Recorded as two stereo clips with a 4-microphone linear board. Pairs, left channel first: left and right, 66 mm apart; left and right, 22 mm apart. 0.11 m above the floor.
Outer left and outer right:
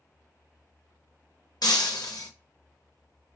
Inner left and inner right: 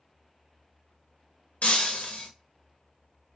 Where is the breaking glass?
80° left, 0.6 m.